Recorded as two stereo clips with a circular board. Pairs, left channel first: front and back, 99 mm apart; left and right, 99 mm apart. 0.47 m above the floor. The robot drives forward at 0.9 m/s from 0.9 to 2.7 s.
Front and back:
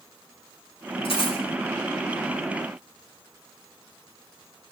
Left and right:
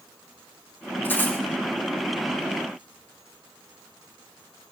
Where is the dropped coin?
20° left, 7.5 m.